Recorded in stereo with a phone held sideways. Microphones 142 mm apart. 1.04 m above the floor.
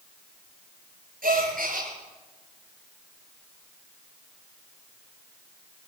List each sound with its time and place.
1.2 s a gasp: 85° right, 5.5 m